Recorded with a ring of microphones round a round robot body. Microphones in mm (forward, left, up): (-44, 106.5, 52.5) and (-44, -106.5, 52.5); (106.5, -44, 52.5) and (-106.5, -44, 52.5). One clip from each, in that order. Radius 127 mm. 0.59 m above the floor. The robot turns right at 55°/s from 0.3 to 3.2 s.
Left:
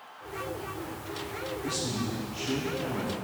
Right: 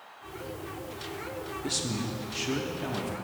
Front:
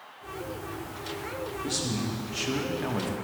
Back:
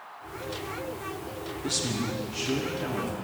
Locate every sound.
1.6 s a man speaking: 115° right, 1.0 m; by 3.1 s 30° right, 1.0 m